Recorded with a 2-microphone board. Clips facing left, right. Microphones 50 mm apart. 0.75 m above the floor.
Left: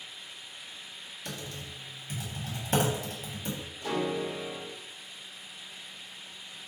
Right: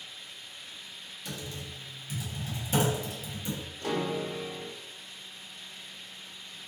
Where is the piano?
60° right (ahead or behind), 1.4 m.